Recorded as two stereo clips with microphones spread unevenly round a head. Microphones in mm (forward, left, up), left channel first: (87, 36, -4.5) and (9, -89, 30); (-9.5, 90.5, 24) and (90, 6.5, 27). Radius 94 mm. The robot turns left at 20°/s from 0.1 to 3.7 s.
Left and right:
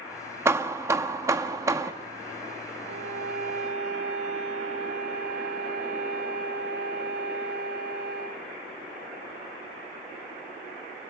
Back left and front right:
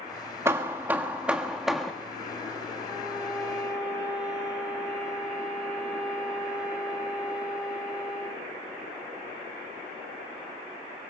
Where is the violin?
105° right, 6.5 m; by 8.4 s 125° right, 6.5 m.